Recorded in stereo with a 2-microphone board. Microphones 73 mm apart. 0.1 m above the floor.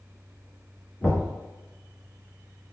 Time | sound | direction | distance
1.0 | knocking | 15° left (ahead or behind) | 1.1 m